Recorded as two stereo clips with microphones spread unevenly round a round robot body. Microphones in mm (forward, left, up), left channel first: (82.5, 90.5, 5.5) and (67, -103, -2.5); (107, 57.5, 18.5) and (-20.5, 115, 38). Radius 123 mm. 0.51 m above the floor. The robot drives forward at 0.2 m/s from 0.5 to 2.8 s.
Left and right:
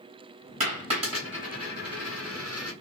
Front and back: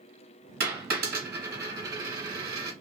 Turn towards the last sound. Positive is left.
turn(degrees=-170)